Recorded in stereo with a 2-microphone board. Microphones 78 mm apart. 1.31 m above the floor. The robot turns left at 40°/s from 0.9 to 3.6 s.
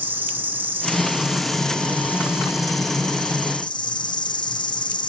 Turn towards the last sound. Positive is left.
turn(degrees=95)